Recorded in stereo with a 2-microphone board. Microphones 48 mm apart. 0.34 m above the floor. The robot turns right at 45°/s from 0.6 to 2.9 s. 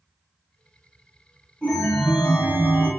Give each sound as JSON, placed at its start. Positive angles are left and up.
{"t": 1.6, "sound": "a chime", "azimuth_deg": 160, "distance_m": 1.1}